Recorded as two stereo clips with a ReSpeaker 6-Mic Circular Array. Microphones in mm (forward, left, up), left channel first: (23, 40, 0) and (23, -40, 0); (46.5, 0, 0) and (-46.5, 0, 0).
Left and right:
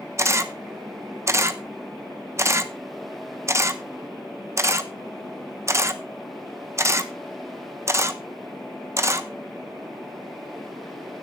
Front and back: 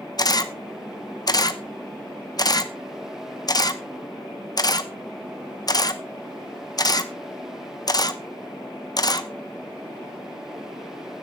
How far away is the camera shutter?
About 0.8 m.